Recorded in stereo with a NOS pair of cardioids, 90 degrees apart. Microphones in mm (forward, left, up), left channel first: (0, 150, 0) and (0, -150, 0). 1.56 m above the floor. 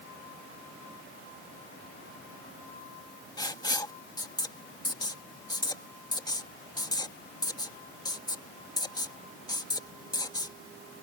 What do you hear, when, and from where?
3.4 s writing: 15° left